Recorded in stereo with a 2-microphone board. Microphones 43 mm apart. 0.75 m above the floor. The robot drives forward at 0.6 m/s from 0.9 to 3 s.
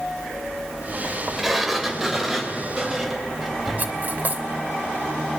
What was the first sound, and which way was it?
A sliding door, 5° right (ahead or behind).